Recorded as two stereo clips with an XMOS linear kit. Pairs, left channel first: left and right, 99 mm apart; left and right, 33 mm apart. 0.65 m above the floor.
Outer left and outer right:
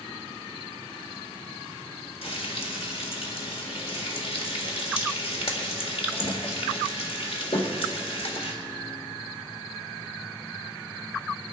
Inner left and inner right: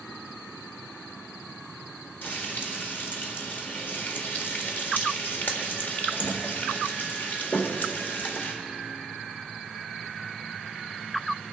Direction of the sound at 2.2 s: 70° left (ahead or behind).